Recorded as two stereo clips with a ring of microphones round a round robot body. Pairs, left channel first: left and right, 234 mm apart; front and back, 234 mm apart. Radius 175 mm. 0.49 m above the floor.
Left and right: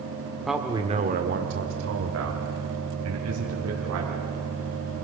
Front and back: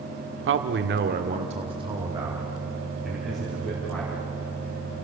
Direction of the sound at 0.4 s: Straight behind.